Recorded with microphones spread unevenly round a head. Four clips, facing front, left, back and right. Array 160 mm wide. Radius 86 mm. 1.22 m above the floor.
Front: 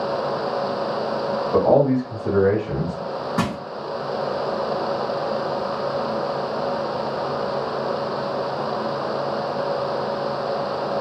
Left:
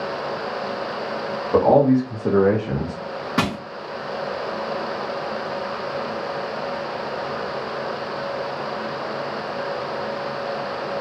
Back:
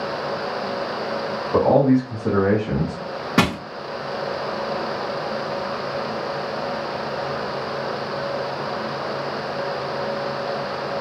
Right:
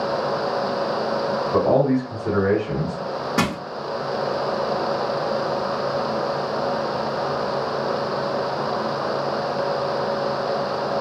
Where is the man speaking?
80° left, 1.1 m; by 3.0 s 160° left, 0.7 m.